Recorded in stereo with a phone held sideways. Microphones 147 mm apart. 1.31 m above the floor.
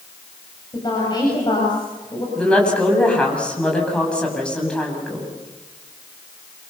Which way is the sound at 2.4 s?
5° left (ahead or behind).